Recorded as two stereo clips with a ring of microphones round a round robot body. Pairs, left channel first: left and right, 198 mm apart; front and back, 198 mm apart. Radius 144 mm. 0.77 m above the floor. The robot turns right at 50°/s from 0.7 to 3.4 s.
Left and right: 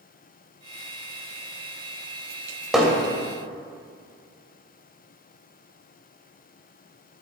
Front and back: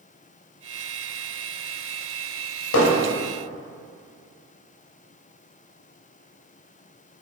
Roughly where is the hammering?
Ahead.